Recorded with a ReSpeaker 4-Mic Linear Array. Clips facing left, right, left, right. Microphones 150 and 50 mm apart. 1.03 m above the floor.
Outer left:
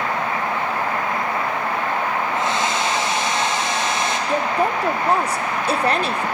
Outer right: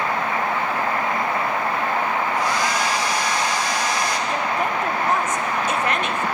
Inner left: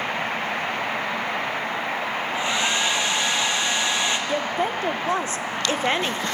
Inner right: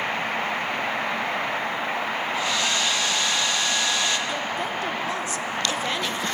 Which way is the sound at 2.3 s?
25° left (ahead or behind).